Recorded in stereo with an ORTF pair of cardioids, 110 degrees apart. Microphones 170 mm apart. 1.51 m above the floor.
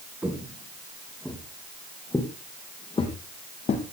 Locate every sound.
0.2 s footsteps: 10° right, 5 m; by 3.8 s 45° left, 4.5 m